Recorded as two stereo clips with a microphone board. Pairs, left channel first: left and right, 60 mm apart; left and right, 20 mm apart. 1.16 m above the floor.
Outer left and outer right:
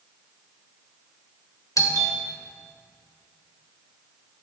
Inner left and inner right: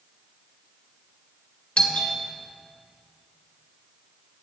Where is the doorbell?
65° left (ahead or behind), 1.5 m.